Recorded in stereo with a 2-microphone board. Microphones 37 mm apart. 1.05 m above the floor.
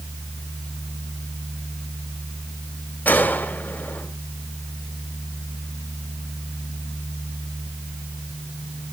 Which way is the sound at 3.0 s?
50° left (ahead or behind).